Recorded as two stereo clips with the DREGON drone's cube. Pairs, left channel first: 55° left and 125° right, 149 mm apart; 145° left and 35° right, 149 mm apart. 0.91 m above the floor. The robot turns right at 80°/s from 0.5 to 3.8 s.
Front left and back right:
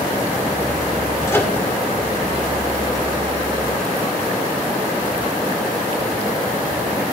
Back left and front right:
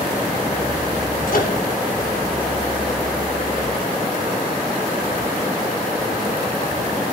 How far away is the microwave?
About 2 m.